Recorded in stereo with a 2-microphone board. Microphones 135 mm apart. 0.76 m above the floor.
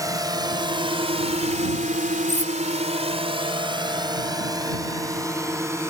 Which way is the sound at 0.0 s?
25° right (ahead or behind).